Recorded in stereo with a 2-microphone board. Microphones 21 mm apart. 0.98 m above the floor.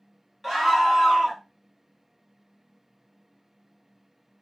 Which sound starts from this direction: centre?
A scream, at 0.4 s.